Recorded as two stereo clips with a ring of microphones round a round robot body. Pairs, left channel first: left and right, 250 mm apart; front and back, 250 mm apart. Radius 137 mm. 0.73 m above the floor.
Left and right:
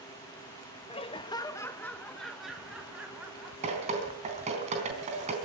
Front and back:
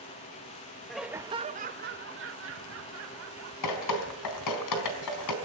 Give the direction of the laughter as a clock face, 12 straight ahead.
9 o'clock.